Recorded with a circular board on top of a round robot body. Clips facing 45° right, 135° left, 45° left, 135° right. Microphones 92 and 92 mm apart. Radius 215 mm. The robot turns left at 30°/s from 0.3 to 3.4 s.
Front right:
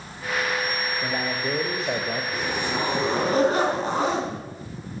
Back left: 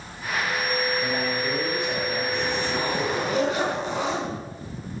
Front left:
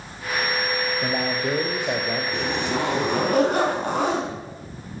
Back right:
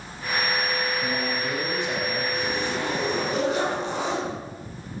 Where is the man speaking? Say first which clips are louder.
Back left 1 dB, front left 3 dB; 30° left, 3.5 m; by 2.2 s 5° right, 3.5 m.